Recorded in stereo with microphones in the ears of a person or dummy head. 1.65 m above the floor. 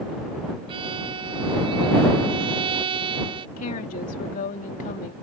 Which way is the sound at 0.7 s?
30° right (ahead or behind).